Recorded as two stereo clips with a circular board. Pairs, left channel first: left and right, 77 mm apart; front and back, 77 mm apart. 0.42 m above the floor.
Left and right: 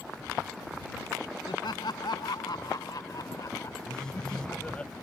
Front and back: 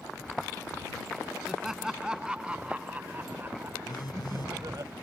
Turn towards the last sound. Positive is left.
turn(degrees=10)